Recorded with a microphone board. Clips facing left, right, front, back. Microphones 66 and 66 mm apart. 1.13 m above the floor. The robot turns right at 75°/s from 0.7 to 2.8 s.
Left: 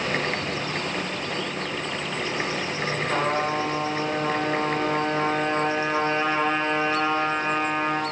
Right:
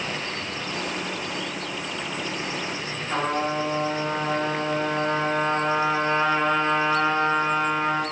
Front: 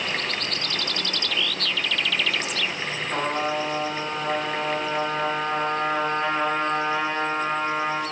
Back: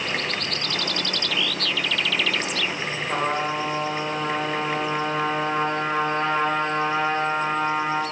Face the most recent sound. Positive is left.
turn(degrees=155)